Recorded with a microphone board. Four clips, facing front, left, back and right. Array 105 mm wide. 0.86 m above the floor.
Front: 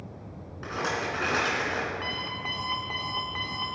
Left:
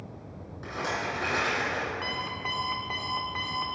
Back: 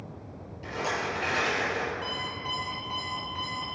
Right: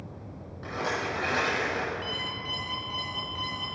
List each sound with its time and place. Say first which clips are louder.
0.6 s a rattle: right 1 dB, front 1 dB; 5° left, 3 m
2.0 s an alarm clock: left 2 dB, even; 55° left, 1.4 m